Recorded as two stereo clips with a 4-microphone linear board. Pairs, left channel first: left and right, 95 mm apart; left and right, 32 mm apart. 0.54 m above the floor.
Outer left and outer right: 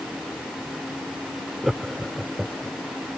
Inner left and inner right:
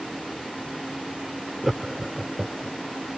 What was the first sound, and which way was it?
Laughter, 5° right (ahead or behind).